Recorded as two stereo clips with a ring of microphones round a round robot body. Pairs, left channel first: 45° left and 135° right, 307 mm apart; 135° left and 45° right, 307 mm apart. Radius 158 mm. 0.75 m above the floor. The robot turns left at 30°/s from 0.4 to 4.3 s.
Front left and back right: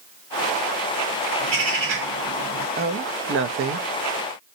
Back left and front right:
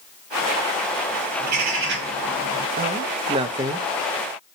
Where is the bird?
85° right, 1.1 m; by 2.7 s 125° right, 1.1 m.